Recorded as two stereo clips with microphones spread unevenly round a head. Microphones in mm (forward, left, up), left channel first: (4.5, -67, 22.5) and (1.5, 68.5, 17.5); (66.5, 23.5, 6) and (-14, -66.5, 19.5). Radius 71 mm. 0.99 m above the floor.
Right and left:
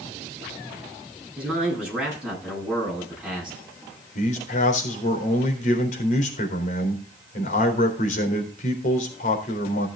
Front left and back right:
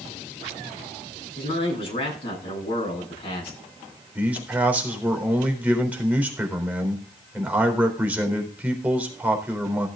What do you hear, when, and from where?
1.4 s a man speaking: 5° left, 10 m
4.2 s a man speaking: 55° right, 4 m